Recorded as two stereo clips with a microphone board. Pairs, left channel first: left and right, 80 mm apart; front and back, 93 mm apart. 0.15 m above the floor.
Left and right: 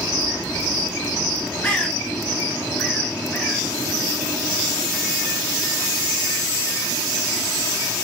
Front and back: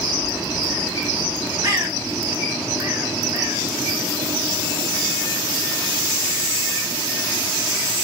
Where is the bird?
155° left, 1.1 m.